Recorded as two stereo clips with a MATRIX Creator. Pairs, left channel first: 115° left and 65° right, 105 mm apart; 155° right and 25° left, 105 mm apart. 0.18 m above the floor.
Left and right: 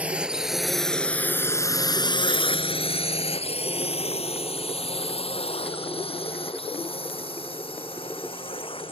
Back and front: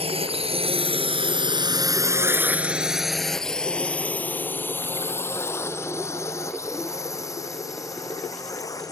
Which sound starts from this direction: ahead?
A drone, at 0.0 s.